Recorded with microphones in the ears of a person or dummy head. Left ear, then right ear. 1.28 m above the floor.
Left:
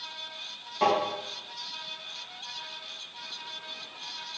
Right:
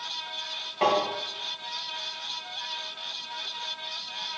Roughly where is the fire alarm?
I don't hear a fire alarm.